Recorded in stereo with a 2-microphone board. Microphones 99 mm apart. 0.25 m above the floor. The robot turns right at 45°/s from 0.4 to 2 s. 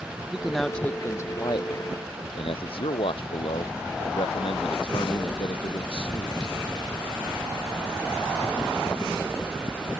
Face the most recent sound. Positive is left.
turn(degrees=70)